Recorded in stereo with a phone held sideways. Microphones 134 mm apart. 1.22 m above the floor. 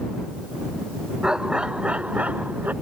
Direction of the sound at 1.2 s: 5° right (ahead or behind).